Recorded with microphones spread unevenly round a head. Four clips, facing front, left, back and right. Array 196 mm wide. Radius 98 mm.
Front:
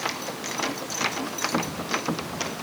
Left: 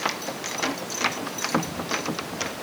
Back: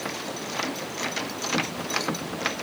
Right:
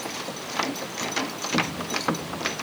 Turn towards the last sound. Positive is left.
No sound to turn to.